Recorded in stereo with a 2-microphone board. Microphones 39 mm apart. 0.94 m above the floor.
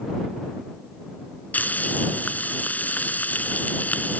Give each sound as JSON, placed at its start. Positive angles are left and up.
{"t": 1.5, "sound": "frying", "side_deg": 45}